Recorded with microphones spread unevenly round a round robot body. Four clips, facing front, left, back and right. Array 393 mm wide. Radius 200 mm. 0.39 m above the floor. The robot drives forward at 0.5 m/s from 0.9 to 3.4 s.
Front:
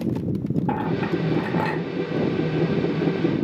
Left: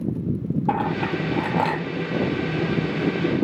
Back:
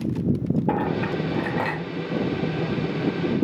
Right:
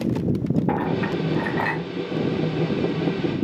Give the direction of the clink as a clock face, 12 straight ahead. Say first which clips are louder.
Even, front 1 dB; 12 o'clock.